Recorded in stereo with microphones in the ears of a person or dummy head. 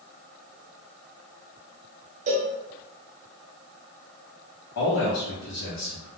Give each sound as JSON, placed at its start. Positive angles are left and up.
{"t": 2.3, "sound": "a cowbell", "side_deg": -40, "distance_m": 0.8}
{"t": 4.8, "sound": "a man speaking", "side_deg": 70, "distance_m": 1.0}